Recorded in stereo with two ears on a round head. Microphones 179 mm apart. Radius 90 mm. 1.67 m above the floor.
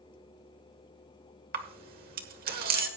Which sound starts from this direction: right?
A camera shutter, at 1.5 s.